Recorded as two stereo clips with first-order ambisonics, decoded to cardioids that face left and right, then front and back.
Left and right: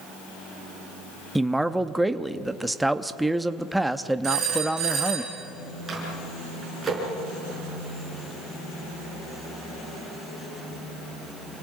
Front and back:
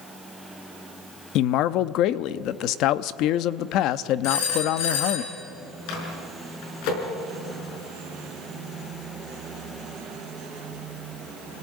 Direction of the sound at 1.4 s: 5° right.